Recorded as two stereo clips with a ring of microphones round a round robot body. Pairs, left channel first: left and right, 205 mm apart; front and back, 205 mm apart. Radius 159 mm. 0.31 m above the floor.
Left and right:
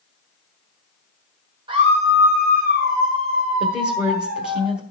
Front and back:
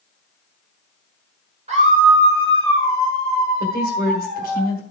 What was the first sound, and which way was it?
A scream, 145° right.